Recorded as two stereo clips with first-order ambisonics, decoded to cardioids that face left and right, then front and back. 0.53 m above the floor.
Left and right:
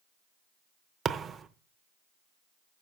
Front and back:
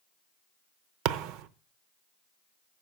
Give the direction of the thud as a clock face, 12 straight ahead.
5 o'clock.